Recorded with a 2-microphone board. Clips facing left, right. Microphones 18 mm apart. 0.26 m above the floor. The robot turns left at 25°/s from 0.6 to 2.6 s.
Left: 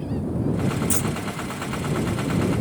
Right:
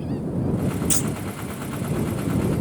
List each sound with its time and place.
0.9 s a clunk: 40° right (ahead or behind); by 1.1 s 35° right (ahead or behind)